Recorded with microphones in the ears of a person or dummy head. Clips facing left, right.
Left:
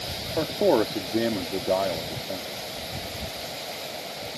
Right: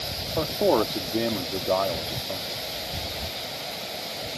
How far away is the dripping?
No dripping in this recording.